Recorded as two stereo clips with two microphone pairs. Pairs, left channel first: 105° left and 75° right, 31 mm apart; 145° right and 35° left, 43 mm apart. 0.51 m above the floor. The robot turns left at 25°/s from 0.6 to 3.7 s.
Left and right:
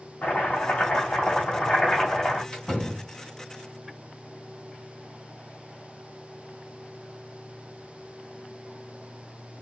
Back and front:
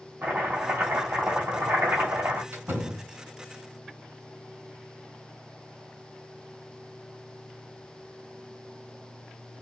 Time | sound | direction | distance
0.2 | chopping | 80° left | 2.5 m
2.5 | a door slam | 45° left | 3 m